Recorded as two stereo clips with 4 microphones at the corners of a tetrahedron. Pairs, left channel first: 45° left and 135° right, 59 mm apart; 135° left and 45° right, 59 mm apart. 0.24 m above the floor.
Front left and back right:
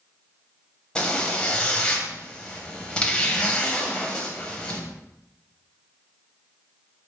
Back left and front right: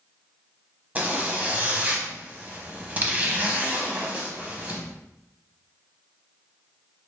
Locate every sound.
0.9 s a zipper: 15° right, 0.8 m